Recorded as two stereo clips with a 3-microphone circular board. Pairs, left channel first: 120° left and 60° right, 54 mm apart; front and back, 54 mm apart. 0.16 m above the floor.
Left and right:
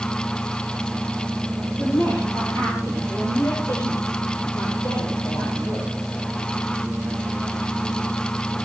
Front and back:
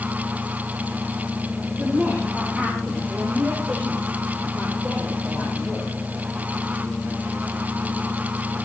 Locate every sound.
1.8 s a woman speaking: 120° left, 3.5 m; by 5.9 s 100° left, 7 m